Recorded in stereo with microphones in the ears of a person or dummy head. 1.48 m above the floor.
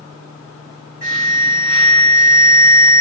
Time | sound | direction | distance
1.0 | an alarm | 40° right (ahead or behind) | 1.5 m